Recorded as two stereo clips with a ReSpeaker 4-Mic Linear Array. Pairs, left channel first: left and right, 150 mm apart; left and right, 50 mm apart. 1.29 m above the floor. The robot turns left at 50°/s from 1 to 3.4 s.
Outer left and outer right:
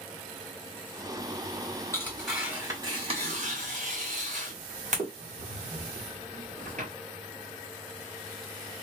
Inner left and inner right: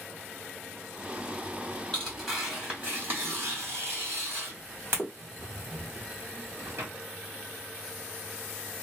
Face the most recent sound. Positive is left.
turn(degrees=-55)  # may be behind; listen again after turning